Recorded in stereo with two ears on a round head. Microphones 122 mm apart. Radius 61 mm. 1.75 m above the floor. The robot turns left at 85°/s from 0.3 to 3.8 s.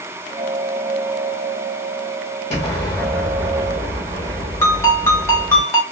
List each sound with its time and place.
2.5 s an explosion: 55° left, 1.4 m; by 5.6 s 55° right, 1.4 m
4.6 s a ringtone: 20° left (ahead or behind), 0.8 m